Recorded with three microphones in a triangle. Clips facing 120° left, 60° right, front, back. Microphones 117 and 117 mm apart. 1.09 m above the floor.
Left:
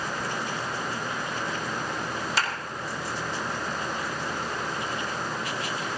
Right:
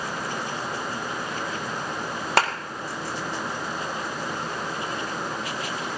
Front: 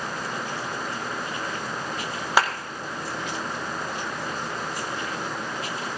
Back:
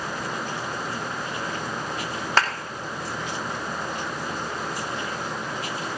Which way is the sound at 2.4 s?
80° right.